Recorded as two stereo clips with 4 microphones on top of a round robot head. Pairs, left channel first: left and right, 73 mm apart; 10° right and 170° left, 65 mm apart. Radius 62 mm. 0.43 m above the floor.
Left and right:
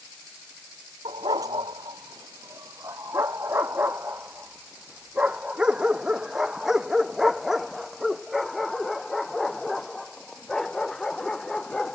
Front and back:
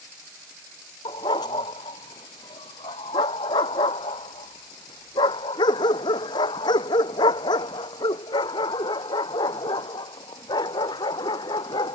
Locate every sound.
1.1 s a dog barking: 45° right; by 12.0 s 5° left